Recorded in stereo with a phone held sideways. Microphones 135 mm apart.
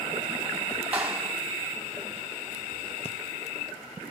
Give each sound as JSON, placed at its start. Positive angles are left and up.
{"t": 0.9, "sound": "a clap", "side_deg": -10, "distance_m": 3.5}
{"t": 3.0, "sound": "breathing", "side_deg": 45, "distance_m": 0.7}